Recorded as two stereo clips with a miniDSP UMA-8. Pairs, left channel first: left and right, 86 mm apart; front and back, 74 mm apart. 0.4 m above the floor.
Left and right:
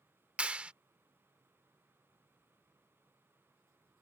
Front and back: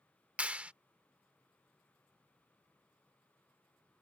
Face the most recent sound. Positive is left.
turn(degrees=-140)